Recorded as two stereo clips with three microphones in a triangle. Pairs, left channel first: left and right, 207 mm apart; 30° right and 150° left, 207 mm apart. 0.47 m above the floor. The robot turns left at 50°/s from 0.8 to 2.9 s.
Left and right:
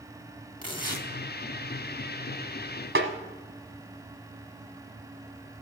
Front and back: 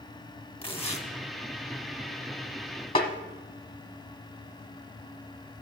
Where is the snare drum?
95° right, 1.1 m.